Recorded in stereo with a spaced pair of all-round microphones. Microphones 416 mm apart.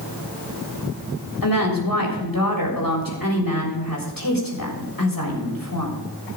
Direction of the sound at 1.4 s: 55° left (ahead or behind).